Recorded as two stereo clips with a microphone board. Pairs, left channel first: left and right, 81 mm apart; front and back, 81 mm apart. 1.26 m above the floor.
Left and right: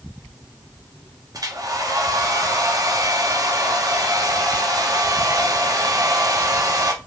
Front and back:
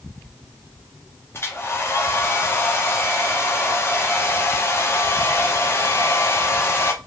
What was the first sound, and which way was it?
A hair dryer, 55° right.